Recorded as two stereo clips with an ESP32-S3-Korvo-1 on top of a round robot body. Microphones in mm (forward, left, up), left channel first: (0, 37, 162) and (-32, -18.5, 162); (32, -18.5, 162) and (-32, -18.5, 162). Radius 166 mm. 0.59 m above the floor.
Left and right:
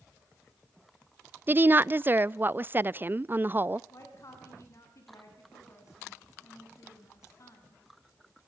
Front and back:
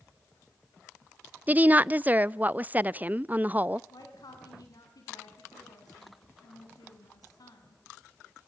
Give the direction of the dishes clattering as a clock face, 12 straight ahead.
No dishes clattering in this recording.